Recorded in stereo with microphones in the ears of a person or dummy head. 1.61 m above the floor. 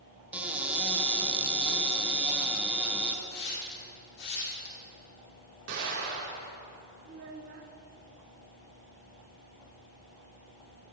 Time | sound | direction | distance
0.3 | a cupboard door | 10° right (ahead or behind) | 1.5 m
3.2 | a hiss | 55° left (ahead or behind) | 3 m
5.7 | an explosion | 70° right (ahead or behind) | 4 m
7.0 | a child speaking | 50° right (ahead or behind) | 1.0 m